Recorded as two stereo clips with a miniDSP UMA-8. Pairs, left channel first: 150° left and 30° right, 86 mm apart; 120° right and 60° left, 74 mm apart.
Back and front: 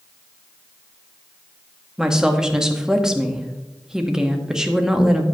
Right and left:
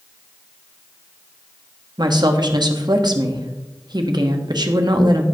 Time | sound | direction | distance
2.0 | a woman speaking | 55° left | 1.1 m